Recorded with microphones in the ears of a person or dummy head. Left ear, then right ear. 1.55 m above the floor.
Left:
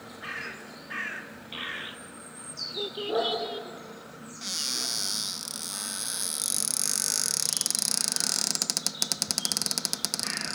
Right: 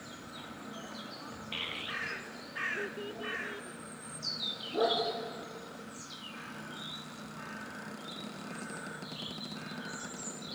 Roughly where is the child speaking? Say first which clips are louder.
Left 1 dB; centre.